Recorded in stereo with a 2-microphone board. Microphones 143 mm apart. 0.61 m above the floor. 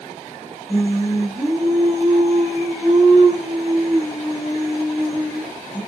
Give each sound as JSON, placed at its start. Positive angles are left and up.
{"t": 0.7, "sound": "singing", "side_deg": -5, "distance_m": 1.8}